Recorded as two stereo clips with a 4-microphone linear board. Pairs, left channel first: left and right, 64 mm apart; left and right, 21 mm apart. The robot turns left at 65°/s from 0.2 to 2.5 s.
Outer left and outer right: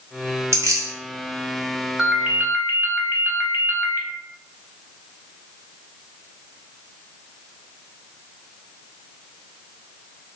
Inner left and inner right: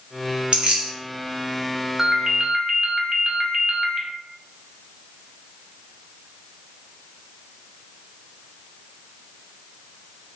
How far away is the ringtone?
About 0.9 m.